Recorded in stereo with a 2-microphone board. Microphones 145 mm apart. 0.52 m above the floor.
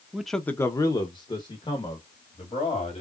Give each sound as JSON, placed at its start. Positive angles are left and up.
{"t": 0.1, "sound": "a man speaking", "side_deg": -5, "distance_m": 0.7}